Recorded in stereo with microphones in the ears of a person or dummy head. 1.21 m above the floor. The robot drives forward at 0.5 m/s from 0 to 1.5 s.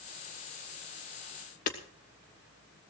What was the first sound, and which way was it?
Hammering, 55° left (ahead or behind).